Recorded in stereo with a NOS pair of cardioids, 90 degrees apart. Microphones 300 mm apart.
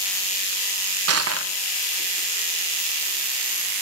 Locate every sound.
1.1 s crushing: 55° right, 1.4 m